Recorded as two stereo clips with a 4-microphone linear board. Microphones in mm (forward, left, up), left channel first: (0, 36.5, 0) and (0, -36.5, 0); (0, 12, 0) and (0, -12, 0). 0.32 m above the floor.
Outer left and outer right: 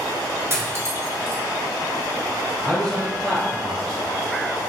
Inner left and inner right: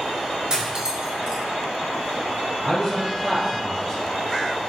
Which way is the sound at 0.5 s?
35° right (ahead or behind).